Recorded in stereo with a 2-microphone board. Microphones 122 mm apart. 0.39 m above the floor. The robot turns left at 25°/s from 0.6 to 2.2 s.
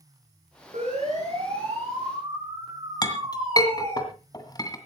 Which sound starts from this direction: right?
A siren, at 0.7 s.